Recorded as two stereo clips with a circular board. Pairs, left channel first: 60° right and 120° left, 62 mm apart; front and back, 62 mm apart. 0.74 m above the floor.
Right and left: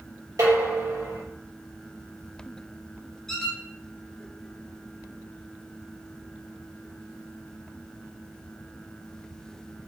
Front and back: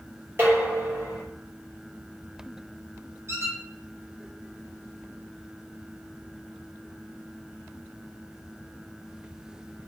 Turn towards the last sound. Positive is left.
turn(degrees=-140)